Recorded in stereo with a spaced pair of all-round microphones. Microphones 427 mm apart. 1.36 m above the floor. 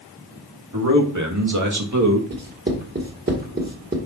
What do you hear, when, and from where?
0.7 s a man speaking: 45° right (ahead or behind), 2.5 m
2.3 s writing: 25° right (ahead or behind), 1.5 m